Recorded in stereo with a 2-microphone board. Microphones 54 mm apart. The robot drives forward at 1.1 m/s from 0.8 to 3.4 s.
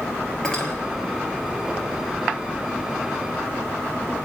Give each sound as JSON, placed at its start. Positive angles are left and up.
{"t": 0.4, "sound": "cutlery clinking", "side_deg": 15, "distance_m": 1.8}